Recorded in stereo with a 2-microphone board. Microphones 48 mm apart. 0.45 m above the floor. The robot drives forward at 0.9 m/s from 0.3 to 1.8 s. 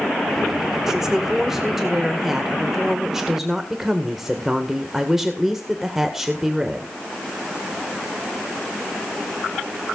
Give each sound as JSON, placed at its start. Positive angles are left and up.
{"t": 0.9, "sound": "a woman speaking", "side_deg": -10, "distance_m": 1.3}